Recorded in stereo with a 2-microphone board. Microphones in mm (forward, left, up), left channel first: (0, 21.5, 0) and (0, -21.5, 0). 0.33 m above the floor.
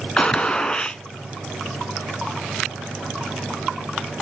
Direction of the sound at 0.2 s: 20° left (ahead or behind).